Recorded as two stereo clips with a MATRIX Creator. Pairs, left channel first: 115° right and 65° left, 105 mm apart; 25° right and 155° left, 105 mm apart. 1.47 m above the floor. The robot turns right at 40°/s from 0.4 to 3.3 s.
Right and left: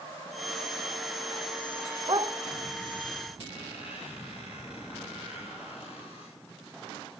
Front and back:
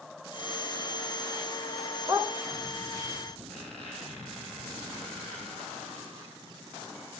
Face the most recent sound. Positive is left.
turn(degrees=-105)